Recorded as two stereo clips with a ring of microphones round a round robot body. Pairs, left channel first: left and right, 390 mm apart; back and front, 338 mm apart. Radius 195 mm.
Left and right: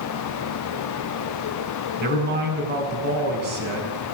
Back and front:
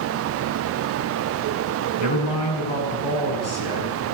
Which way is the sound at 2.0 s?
155° right.